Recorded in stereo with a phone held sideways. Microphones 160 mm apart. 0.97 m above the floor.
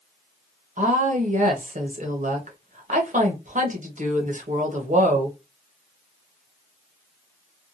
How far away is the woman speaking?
About 0.9 m.